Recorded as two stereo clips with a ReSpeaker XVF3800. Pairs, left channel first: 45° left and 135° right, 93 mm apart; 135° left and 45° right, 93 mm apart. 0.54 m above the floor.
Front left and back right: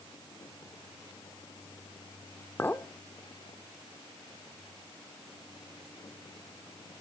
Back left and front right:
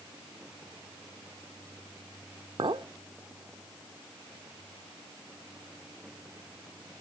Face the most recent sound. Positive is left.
turn(degrees=-20)